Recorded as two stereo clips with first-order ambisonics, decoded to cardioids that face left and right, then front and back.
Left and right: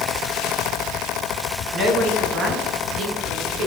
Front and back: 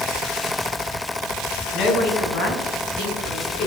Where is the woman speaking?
35° right, 4 m; by 3.7 s 50° right, 5.5 m.